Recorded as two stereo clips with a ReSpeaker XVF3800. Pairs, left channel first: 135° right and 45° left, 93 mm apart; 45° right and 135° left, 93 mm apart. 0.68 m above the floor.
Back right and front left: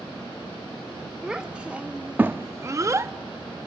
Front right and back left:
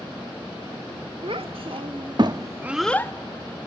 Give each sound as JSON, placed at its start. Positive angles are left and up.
{"t": 1.2, "sound": "a child speaking", "azimuth_deg": 125, "distance_m": 1.6}